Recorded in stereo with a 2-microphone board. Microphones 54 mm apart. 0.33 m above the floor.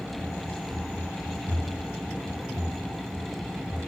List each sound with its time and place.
0.2 s running footsteps: 30° right (ahead or behind), 1.4 m; by 3.9 s 75° right (ahead or behind), 4 m